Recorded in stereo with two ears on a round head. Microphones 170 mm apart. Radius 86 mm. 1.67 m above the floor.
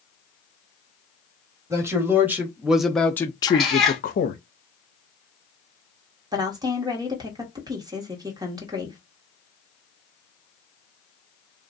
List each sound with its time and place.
1.7 s a man speaking: 15° right (ahead or behind), 1.3 m; by 4.4 s 45° left (ahead or behind), 0.7 m
3.5 s a cat meowing: centre (ahead or behind), 0.9 m
6.3 s a woman speaking: 20° right (ahead or behind), 1.1 m